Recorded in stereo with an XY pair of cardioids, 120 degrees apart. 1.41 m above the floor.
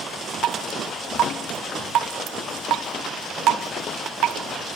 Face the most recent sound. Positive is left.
turn(degrees=-65)